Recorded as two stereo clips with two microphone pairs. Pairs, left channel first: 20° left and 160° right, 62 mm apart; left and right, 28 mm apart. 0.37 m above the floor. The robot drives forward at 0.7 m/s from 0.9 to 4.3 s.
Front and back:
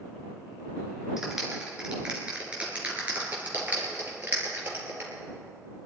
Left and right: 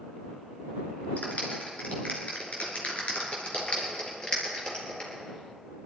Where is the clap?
115° left, 4 m; by 5.1 s 140° left, 5 m.